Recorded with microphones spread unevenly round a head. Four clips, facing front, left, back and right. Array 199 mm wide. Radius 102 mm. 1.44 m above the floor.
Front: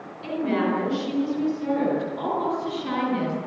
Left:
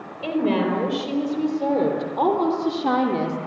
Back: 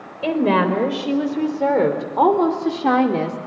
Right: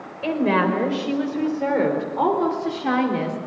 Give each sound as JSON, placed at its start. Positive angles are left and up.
{"t": 0.2, "sound": "a woman speaking", "azimuth_deg": 180, "distance_m": 5.0}